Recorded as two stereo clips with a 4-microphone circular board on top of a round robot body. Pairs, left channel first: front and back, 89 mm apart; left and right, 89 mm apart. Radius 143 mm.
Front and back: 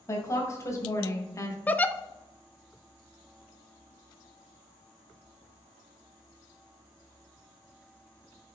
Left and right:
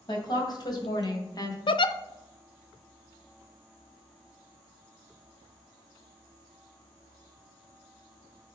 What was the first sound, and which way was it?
A woman speaking, 55° left.